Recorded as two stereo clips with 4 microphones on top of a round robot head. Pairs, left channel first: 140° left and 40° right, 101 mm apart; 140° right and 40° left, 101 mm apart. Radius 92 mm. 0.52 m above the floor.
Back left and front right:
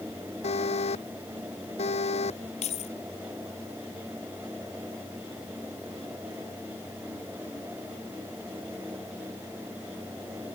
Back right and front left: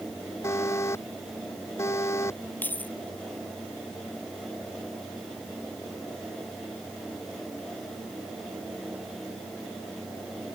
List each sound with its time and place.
0.4 s an alarm: 155° left
2.6 s keys jangling: 145° left